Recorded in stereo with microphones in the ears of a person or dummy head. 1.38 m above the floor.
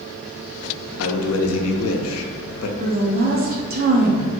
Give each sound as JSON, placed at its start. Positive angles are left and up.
{"t": 1.0, "sound": "a man speaking", "side_deg": 80, "distance_m": 0.5}
{"t": 2.8, "sound": "a woman speaking", "side_deg": -45, "distance_m": 0.6}